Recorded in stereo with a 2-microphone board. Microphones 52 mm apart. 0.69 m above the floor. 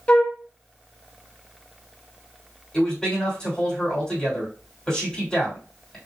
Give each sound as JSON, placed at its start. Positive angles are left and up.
{"t": 0.1, "sound": "a flute", "side_deg": 20, "distance_m": 0.9}
{"t": 2.7, "sound": "a man speaking", "side_deg": 15, "distance_m": 3.0}